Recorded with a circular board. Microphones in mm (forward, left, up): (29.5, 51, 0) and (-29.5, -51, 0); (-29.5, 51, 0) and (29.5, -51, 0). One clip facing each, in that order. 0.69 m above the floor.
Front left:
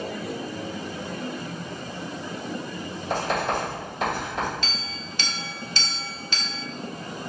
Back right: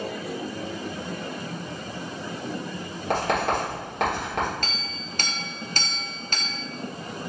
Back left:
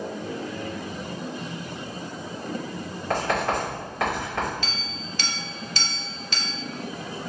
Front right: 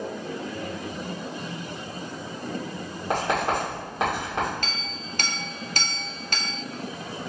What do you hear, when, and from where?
3.1 s writing: 125° right, 2 m
4.6 s a clink: 85° right, 0.5 m